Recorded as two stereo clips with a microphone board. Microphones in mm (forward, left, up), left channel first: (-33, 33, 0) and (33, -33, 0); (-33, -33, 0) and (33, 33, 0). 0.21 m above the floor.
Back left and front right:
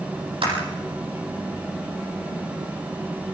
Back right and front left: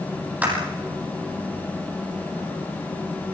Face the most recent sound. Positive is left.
turn(degrees=-30)